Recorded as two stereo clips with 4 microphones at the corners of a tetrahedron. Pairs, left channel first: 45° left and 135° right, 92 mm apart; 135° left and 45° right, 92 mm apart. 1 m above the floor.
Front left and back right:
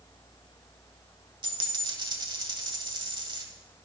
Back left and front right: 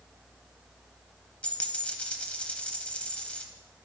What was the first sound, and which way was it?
A dropped coin, 150° right.